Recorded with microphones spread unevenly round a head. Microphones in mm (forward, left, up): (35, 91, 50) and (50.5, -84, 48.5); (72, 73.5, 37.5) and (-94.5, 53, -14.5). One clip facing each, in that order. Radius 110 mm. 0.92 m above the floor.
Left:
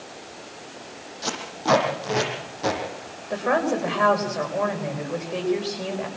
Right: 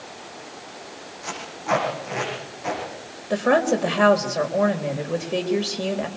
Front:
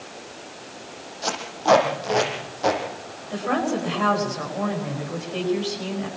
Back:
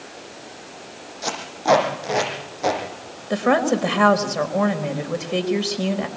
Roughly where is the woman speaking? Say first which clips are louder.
Right 4 dB, back 6 dB; behind right.